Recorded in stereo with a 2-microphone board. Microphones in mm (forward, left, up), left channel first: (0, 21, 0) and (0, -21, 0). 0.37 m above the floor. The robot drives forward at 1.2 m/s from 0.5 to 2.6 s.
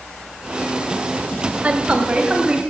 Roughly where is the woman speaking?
Right.